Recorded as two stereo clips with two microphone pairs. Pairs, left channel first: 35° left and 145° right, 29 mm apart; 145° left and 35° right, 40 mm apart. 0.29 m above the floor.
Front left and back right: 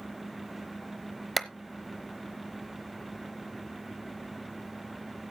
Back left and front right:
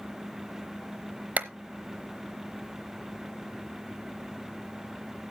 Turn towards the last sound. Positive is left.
turn(degrees=-55)